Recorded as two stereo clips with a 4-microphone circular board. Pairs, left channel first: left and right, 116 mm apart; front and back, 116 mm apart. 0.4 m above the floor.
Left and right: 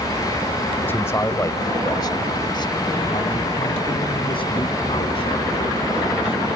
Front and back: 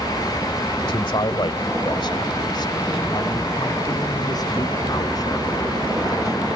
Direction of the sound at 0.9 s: 25° left.